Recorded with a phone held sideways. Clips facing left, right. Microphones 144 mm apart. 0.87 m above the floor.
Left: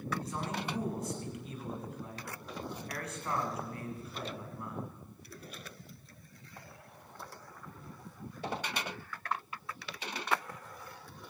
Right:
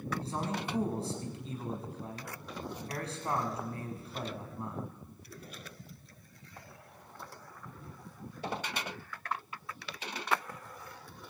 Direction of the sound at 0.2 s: 30° right (ahead or behind).